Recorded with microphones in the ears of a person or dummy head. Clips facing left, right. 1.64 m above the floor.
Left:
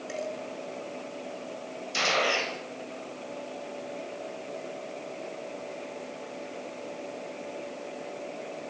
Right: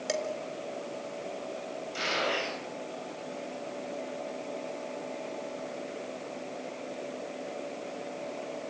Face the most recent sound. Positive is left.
turn(degrees=85)